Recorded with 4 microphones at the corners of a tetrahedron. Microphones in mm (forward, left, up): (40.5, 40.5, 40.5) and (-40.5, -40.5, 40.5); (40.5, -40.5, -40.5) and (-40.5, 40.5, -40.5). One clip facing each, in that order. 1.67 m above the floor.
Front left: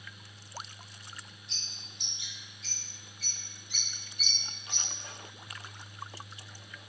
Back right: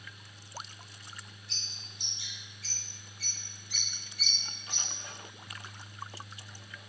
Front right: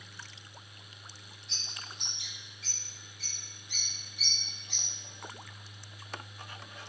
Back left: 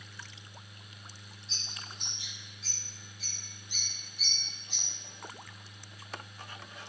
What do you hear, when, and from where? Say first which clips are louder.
1.5 s a bird: even, even; 20° right, 4.5 m